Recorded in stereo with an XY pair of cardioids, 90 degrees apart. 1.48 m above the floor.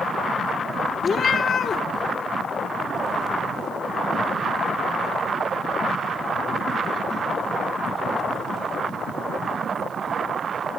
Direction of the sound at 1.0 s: 60° left.